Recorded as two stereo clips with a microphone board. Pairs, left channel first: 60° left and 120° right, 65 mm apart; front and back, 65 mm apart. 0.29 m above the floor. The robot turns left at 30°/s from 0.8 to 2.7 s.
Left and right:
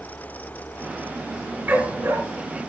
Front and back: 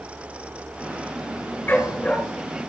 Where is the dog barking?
60° right, 2.0 m; by 2.2 s 75° right, 2.0 m.